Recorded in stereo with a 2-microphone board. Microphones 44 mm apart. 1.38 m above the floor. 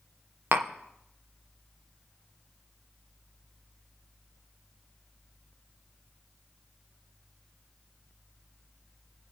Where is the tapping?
55° right (ahead or behind), 1.0 m.